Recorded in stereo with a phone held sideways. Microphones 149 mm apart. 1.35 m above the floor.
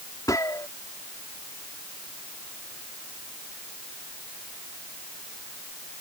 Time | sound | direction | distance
0.3 | a gunshot | 25° left (ahead or behind) | ?